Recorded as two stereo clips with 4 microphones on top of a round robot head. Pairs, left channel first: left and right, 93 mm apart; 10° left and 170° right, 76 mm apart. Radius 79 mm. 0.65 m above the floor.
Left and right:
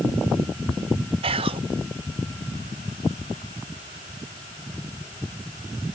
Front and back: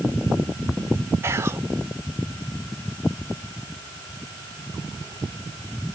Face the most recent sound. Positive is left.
turn(degrees=-110)